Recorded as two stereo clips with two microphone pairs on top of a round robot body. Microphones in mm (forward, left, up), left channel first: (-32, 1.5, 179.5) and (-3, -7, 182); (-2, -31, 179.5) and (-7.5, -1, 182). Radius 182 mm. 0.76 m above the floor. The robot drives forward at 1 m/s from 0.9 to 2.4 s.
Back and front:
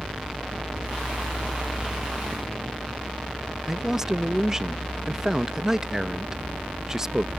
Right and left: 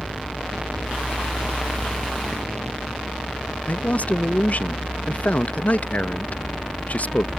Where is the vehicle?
20° right.